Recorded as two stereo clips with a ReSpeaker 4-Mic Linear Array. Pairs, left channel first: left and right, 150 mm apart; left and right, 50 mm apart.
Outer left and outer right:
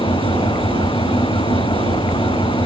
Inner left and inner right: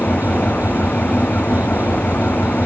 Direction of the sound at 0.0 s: 35° left (ahead or behind).